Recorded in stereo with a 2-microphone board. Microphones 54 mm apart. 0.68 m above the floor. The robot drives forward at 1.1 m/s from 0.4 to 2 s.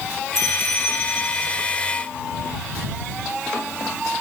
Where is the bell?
70° left (ahead or behind), 1.3 m; by 1.8 s 35° left (ahead or behind), 2 m.